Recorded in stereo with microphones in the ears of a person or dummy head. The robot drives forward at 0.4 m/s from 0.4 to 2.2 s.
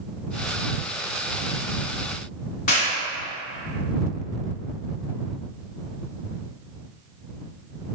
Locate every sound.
2.7 s a clap: 50° left (ahead or behind), 0.7 m